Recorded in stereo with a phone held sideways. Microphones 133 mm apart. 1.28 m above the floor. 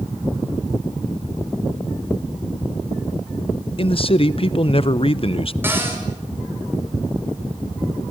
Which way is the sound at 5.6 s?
15° right (ahead or behind).